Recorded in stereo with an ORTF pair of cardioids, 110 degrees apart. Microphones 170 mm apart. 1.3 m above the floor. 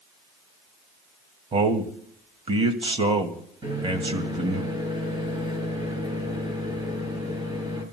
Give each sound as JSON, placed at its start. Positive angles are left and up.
{"t": 1.5, "sound": "a man speaking", "azimuth_deg": -35, "distance_m": 2.0}
{"t": 3.6, "sound": "a microwave", "azimuth_deg": -25, "distance_m": 7.0}